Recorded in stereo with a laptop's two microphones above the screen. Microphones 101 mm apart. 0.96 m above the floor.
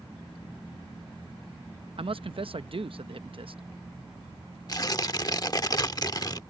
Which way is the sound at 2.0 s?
60° right (ahead or behind).